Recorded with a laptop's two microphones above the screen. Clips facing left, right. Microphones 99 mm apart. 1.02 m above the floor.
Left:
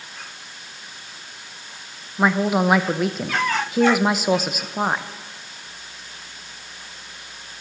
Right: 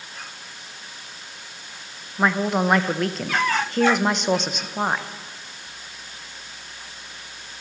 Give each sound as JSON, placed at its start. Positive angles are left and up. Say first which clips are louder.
{"t": 2.2, "sound": "a woman speaking", "louder": "left 2 dB", "side_deg": 5, "distance_m": 0.9}